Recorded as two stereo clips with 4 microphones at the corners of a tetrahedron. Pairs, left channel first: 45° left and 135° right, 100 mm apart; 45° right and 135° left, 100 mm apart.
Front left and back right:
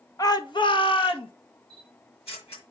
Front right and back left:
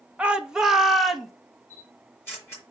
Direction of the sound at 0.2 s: 65° left.